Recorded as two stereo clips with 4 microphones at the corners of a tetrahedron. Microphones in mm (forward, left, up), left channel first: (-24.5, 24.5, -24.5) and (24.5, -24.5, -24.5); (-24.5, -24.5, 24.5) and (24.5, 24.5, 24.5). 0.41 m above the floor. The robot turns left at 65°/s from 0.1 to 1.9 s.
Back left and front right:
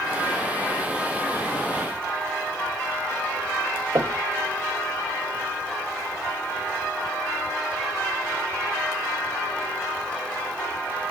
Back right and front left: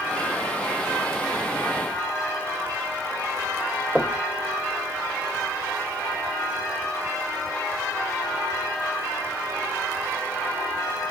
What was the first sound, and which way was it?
Knocking, 40° right.